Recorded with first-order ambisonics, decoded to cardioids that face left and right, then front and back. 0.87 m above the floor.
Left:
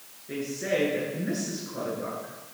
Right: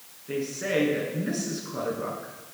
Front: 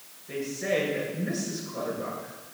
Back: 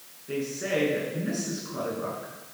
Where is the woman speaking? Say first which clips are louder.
Right 1 dB, even; 125° right, 9 m.